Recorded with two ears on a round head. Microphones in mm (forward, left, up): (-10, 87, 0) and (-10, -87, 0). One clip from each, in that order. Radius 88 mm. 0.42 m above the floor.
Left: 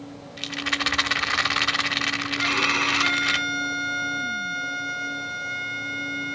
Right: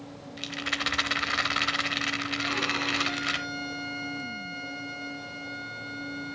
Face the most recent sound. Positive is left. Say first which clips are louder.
# left 8 dB
turn(degrees=35)  # may be behind; listen again after turning